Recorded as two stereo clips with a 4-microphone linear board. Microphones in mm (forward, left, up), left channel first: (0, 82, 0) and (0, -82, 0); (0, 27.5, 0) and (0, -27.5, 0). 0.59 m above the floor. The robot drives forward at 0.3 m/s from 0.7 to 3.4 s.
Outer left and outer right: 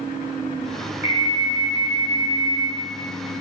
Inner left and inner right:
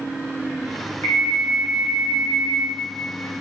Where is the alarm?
45° left (ahead or behind), 2 m; by 2.7 s 40° left (ahead or behind), 2.5 m.